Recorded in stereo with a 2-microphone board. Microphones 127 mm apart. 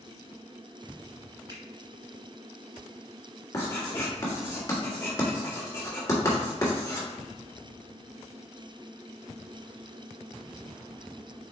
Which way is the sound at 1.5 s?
35° right (ahead or behind).